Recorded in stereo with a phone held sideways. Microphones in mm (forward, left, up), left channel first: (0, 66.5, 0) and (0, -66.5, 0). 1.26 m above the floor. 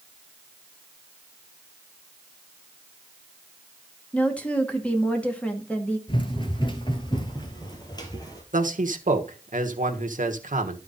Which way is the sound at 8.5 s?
75° right (ahead or behind).